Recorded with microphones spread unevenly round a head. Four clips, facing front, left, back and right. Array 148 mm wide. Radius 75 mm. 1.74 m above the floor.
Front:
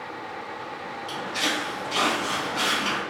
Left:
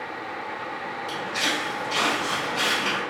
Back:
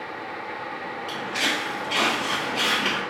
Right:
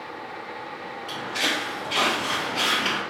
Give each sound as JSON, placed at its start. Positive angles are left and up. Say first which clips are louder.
{"t": 1.1, "sound": "footsteps", "louder": "right 1 dB, even", "azimuth_deg": 180, "distance_m": 2.0}